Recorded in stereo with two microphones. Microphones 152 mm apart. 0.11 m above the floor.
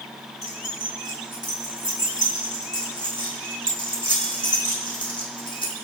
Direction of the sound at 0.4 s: 30° left (ahead or behind).